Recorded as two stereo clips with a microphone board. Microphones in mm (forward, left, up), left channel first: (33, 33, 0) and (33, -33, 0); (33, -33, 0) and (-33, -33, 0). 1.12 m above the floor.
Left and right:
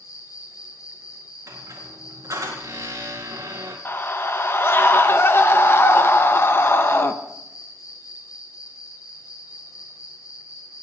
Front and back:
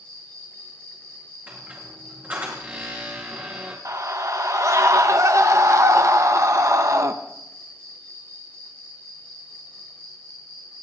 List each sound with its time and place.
0.0 s an insect: 65° left, 8.5 m
1.5 s a squeak: 120° right, 4 m
3.9 s a scream: 140° left, 0.7 m